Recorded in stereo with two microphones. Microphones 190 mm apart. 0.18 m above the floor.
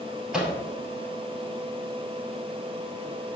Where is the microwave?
Centre (ahead or behind), 4 m.